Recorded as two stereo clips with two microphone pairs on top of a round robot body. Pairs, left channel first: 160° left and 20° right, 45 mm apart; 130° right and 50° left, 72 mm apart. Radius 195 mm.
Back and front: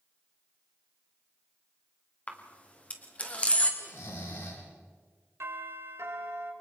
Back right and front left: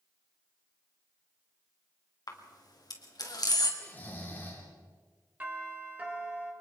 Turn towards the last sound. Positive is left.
turn(degrees=-15)